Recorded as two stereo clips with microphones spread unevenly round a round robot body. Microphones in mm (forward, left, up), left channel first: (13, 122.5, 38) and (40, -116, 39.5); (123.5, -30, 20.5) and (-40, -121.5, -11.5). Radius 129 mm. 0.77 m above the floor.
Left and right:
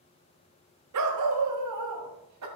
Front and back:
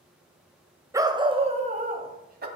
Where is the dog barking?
75° right, 1.6 m; by 2.5 s 115° right, 2.5 m.